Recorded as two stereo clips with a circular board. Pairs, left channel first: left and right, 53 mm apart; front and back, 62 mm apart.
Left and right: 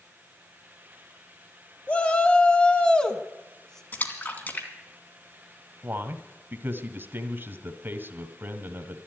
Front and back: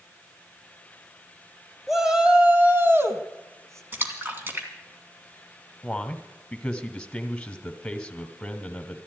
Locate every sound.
1.9 s a shout: 95° left, 1.1 m; by 3.8 s 165° left, 1.7 m
3.9 s a splash: 135° left, 2.5 m
5.8 s a man speaking: 70° right, 1.6 m